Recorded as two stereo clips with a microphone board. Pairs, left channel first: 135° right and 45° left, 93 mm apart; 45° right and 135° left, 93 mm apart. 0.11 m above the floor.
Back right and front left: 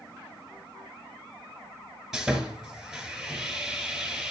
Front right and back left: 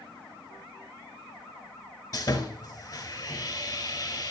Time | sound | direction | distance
2.1 | sawing | 40° right | 1.2 m